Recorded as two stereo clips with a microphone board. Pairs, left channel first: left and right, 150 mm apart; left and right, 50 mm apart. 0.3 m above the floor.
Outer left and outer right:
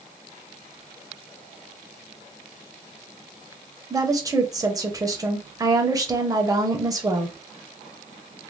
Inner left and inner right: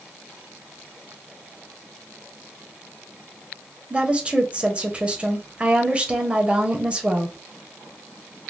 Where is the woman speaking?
25° right (ahead or behind), 1.0 m.